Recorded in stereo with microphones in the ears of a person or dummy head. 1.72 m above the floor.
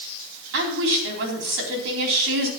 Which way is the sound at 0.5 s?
70° right (ahead or behind).